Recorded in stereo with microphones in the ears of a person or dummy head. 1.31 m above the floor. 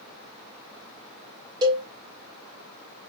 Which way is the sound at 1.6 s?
20° right (ahead or behind).